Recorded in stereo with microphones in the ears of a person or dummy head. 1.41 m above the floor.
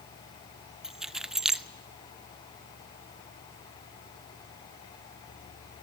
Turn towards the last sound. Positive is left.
turn(degrees=-10)  # may be behind; listen again after turning